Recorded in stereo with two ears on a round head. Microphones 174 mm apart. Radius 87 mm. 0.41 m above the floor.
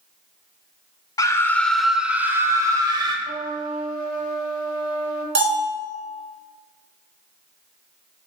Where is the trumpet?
45° right (ahead or behind), 1.7 m.